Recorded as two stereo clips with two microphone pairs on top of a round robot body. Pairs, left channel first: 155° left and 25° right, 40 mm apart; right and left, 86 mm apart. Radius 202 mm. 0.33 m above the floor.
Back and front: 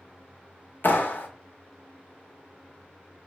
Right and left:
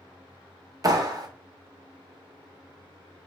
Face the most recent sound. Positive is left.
turn(degrees=130)